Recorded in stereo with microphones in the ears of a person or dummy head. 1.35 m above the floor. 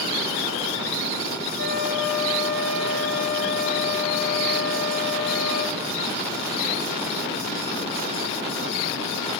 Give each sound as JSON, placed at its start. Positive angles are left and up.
{"t": 1.6, "sound": "a flute", "side_deg": 0, "distance_m": 2.5}